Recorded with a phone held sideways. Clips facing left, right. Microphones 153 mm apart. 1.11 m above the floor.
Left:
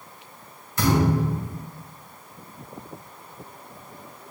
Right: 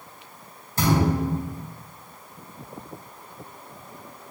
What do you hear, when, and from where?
0.8 s a thud: 35° right (ahead or behind), 4 m